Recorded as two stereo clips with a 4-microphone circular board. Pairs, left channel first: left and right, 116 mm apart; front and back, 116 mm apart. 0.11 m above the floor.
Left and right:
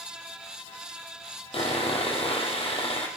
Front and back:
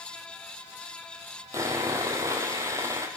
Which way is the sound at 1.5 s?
120° left.